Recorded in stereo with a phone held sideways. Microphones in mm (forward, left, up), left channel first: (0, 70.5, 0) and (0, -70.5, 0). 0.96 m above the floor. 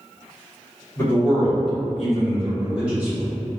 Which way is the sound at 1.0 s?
15° left (ahead or behind).